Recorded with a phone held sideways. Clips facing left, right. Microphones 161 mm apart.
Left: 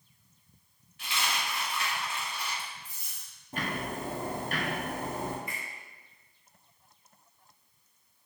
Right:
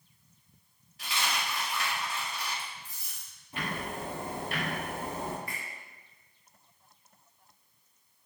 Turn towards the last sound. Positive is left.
turn(degrees=20)  # may be behind; listen again after turning